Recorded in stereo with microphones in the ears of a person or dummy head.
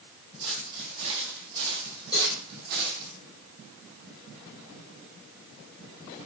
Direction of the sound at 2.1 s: 25° left (ahead or behind).